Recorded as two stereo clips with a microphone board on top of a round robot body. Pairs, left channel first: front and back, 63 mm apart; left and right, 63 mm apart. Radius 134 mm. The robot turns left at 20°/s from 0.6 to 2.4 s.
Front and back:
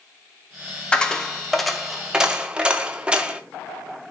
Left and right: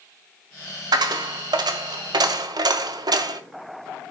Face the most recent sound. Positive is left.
turn(degrees=-105)